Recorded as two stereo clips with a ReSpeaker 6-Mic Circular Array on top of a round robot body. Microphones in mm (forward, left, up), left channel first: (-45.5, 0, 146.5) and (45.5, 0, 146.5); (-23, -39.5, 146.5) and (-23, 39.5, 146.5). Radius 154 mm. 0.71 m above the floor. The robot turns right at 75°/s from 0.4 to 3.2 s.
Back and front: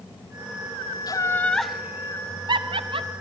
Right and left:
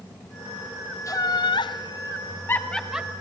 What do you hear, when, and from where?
1.1 s laughter: 135° right, 1.3 m; by 3.1 s 15° left, 1.3 m